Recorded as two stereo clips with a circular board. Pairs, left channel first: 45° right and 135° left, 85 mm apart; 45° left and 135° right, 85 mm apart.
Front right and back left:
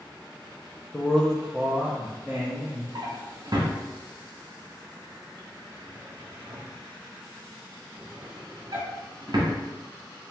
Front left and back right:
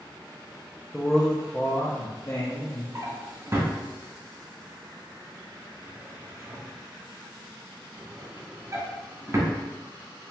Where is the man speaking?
55° right, 0.6 m; by 2.9 s 75° left, 1.2 m.